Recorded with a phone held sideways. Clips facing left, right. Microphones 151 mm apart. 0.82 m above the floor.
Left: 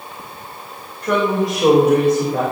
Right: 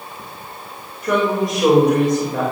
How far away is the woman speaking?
About 3 m.